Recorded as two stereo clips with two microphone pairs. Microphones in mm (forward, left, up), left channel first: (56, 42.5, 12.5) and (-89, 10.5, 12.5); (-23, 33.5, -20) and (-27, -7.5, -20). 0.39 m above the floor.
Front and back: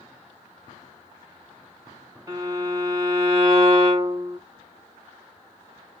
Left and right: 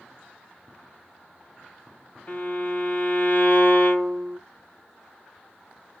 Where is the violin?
125° left, 1.8 m.